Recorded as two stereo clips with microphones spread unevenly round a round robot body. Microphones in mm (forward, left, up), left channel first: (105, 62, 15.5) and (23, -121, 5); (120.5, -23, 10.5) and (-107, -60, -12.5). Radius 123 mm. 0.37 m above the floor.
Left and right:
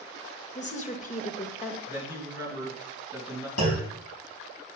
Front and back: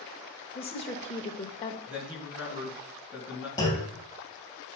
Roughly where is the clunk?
Left.